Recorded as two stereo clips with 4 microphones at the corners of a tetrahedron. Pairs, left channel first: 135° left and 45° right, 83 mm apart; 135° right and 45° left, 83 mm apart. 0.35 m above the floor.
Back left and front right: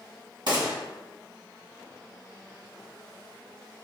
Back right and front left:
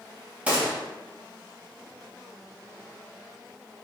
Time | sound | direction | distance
0.5 | a gunshot | 25° right | 1.1 m